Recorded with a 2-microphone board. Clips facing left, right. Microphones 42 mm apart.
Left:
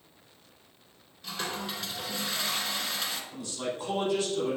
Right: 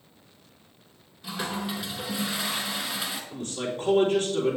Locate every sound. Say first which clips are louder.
1.2 s a toilet flushing: right 3 dB; 10° right (ahead or behind), 0.9 m
3.3 s a man speaking: right 3 dB; 45° right (ahead or behind), 3 m